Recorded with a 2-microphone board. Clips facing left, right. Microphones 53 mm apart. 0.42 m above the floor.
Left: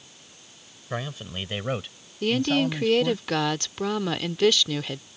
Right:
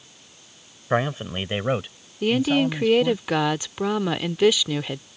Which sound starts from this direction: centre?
A woman speaking, at 2.2 s.